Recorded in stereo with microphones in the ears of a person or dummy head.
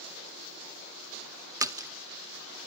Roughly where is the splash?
Centre.